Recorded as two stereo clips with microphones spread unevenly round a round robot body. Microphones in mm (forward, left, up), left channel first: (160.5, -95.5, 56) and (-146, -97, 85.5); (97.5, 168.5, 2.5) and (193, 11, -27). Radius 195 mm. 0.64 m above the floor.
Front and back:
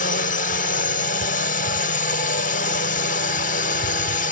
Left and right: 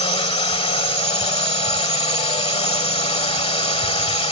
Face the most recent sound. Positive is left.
turn(degrees=65)